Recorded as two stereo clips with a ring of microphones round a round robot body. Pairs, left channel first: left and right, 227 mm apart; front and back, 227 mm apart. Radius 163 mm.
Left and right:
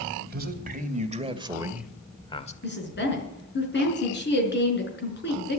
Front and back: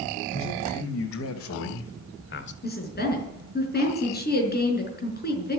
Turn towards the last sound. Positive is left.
turn(degrees=50)